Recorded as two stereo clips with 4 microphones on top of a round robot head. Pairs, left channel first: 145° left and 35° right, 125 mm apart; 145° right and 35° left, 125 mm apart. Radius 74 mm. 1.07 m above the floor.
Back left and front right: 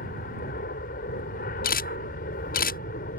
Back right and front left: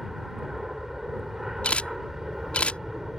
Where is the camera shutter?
135° left.